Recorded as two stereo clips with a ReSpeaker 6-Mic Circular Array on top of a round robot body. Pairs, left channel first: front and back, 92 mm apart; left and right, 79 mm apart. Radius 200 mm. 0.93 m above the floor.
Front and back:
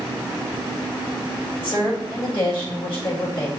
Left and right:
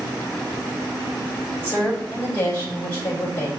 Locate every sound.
1.6 s a woman speaking: 30° left, 5 m